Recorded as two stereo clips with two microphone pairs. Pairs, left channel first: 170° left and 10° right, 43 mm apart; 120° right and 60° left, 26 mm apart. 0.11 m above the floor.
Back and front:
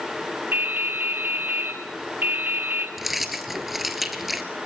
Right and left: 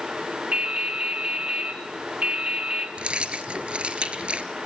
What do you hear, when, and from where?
0.5 s dripping: 20° left, 2 m
3.0 s keys jangling: 75° left, 1.6 m